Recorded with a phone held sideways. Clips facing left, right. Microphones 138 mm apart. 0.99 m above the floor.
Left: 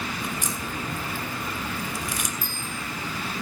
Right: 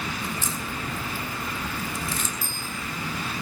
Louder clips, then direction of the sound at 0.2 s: Even; 15° left (ahead or behind).